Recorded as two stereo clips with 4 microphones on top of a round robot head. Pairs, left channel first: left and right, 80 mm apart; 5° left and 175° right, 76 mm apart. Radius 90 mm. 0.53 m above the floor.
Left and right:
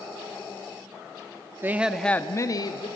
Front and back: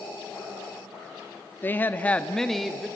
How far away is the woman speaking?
About 1.1 m.